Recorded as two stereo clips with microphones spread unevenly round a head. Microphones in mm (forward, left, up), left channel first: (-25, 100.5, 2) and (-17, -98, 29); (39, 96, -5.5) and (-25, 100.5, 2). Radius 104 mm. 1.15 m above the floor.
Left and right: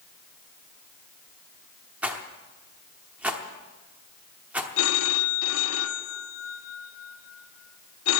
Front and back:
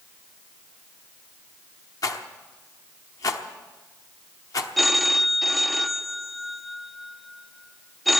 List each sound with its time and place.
2.0 s a rattle: 15° right, 0.9 m
4.8 s a phone ringing: 90° left, 0.8 m